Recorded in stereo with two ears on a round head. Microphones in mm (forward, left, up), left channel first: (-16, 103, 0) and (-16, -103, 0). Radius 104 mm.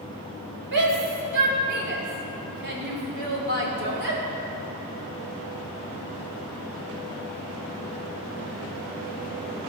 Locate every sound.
0.7 s a shout: 50° right (ahead or behind), 3 m